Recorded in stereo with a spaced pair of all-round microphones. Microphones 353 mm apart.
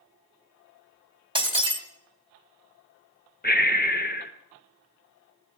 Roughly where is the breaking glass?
Centre.